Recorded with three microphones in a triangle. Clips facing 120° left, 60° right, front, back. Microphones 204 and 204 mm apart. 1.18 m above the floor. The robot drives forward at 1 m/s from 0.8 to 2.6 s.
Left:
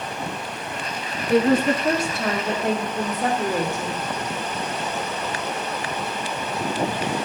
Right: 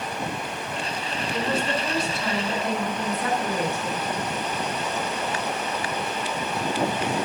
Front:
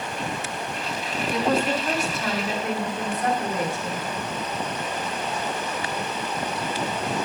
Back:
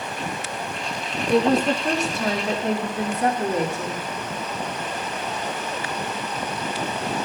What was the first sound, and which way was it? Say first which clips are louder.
A woman speaking: left 10 dB, back 5 dB; 140° left.